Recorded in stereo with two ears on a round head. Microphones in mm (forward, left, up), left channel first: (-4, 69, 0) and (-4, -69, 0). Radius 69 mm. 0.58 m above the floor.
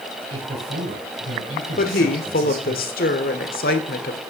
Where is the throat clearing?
I don't hear throat clearing.